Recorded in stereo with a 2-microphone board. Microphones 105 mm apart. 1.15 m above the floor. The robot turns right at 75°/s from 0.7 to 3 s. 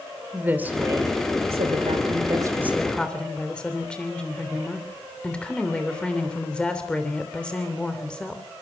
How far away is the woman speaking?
About 3.5 m.